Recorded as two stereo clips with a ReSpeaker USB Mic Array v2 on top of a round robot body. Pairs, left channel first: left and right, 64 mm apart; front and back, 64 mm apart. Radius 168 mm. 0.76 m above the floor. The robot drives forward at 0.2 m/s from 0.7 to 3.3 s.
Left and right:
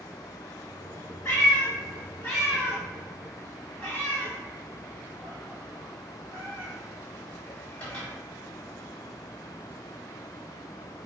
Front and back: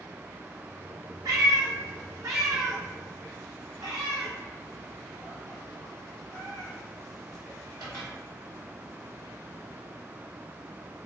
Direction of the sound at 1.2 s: 145° left.